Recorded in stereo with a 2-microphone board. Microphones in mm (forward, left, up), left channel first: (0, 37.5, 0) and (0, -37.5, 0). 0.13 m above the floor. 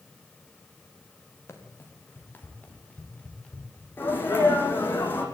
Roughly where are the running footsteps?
Left.